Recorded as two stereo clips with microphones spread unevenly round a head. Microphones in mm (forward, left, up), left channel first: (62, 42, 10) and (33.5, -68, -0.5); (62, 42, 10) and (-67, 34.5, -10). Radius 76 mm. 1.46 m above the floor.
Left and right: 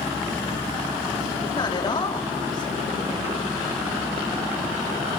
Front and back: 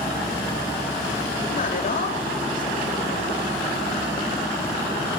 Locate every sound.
1.5 s a man speaking: 25° left, 4.5 m